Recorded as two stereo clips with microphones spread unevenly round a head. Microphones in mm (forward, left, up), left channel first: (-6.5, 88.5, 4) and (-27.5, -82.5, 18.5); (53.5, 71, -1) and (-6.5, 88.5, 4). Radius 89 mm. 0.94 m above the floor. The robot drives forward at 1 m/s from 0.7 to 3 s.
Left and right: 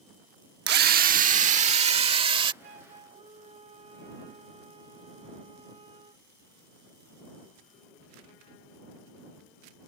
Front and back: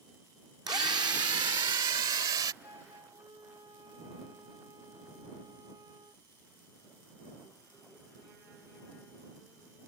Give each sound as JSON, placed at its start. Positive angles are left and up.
{"t": 0.7, "sound": "a drill", "azimuth_deg": -130}
{"t": 2.6, "sound": "a flute", "azimuth_deg": -145}